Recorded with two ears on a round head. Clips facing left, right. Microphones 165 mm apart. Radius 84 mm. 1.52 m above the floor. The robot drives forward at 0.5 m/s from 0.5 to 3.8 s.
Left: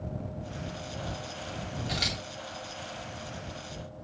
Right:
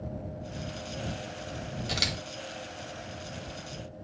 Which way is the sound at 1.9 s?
50° right (ahead or behind).